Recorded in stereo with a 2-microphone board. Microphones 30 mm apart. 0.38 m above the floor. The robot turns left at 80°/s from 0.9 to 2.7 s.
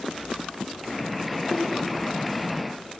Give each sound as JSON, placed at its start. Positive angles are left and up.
{"t": 1.4, "sound": "a whoosh", "side_deg": 5, "distance_m": 3.5}